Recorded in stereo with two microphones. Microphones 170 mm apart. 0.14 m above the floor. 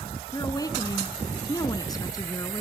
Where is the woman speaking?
20° left (ahead or behind), 1.1 m.